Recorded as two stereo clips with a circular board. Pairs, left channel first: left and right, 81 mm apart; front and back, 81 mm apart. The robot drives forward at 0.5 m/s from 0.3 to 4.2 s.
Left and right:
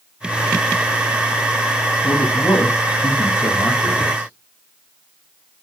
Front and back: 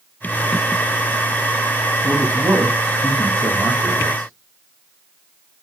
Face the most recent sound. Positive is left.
turn(degrees=150)